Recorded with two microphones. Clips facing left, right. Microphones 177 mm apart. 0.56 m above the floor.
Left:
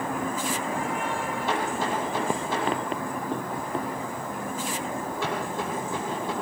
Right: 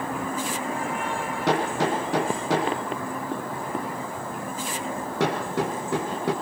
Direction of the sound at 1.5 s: 85° right.